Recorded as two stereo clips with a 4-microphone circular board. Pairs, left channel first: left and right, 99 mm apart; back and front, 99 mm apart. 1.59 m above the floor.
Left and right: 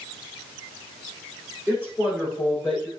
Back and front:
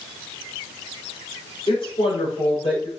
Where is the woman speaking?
160° right, 5 m; by 2.9 s 170° right, 6 m.